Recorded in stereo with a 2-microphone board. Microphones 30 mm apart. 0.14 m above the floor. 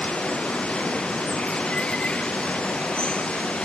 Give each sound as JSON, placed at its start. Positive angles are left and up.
{"t": 0.0, "sound": "running water", "side_deg": 35}